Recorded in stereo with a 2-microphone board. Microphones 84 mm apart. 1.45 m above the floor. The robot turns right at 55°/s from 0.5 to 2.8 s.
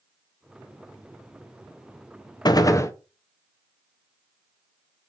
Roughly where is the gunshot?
Left.